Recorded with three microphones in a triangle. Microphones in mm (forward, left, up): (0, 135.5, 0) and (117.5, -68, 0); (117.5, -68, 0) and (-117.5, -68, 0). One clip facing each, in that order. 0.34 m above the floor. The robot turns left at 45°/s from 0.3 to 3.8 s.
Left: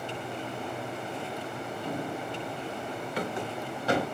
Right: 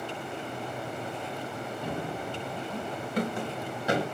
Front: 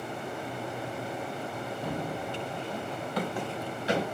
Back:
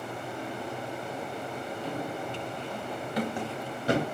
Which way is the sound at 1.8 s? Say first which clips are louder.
Left 1 dB, front 1 dB; 35° right.